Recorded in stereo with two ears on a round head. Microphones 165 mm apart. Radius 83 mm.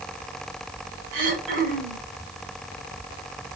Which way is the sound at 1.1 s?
70° right (ahead or behind).